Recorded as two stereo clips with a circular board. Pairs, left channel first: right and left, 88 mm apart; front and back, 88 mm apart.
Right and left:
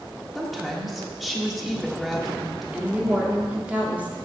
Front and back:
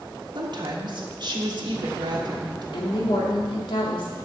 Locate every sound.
0.3 s a woman speaking: 175° left, 1.2 m
2.7 s a woman speaking: 15° left, 2.0 m